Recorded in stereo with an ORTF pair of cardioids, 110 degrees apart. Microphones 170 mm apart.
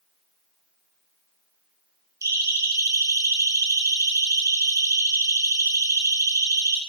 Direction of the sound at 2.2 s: 20° right.